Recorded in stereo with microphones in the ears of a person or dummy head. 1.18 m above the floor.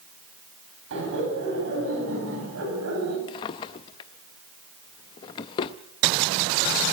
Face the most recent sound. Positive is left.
turn(degrees=25)  # may be behind; listen again after turning